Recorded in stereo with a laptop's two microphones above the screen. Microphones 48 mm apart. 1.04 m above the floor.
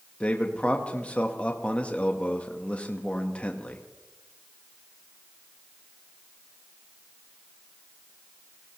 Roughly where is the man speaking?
Left.